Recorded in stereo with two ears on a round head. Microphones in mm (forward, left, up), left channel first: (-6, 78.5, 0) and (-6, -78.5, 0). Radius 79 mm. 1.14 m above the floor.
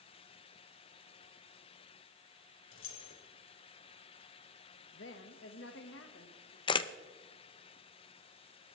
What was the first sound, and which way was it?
Keys jangling, 85° left.